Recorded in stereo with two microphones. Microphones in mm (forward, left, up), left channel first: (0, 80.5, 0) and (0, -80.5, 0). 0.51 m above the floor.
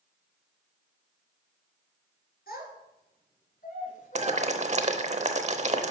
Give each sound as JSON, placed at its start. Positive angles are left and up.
{"t": 2.5, "sound": "a child speaking", "side_deg": 70, "distance_m": 4.5}
{"t": 4.2, "sound": "boiling", "side_deg": -45, "distance_m": 0.8}